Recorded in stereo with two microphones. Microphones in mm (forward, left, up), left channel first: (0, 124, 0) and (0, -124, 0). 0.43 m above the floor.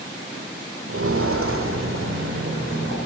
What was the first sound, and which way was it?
Footsteps, 60° right (ahead or behind).